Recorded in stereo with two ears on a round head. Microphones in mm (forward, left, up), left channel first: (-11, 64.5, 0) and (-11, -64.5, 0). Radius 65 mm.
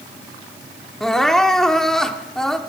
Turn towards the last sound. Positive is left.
turn(degrees=5)  # may be behind; listen again after turning